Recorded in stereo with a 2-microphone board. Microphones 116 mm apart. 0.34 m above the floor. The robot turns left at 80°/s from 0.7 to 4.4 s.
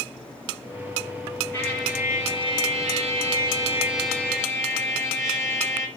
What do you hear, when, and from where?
1.5 s a trumpet: 25° left, 4 m; by 5.9 s 155° left, 4 m